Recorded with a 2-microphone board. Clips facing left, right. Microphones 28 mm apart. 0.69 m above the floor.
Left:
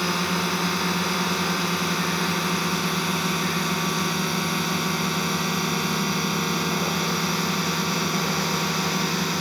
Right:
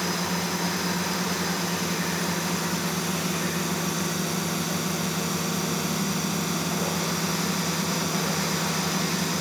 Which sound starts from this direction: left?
A drone, at 0.0 s.